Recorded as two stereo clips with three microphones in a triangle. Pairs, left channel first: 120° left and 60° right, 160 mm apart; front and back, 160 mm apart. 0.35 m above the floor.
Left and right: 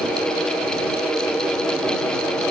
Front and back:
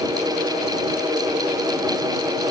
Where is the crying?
I don't hear crying.